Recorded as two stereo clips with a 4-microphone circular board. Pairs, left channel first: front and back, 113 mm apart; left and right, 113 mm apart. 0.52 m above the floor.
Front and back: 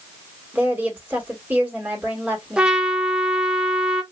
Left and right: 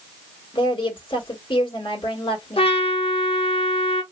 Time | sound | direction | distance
0.5 | a woman speaking | 110° left | 1.8 m
2.6 | a trumpet | 100° left | 0.9 m